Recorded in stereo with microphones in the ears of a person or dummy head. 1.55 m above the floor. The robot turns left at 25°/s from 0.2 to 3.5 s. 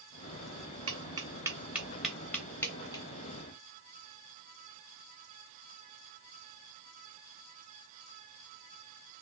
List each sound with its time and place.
0.9 s tapping: 25° right (ahead or behind), 1.4 m; by 3.0 s 25° left (ahead or behind), 1.4 m